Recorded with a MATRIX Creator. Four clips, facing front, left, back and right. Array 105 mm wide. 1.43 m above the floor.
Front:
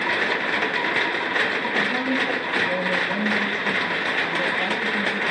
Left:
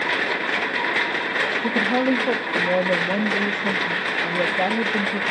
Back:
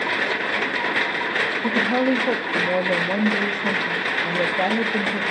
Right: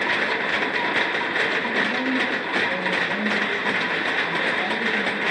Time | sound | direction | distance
1.6 | a woman speaking | 135° left | 2.0 m